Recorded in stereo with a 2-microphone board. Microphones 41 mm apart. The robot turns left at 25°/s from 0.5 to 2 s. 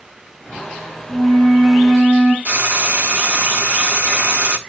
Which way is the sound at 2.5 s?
40° right (ahead or behind).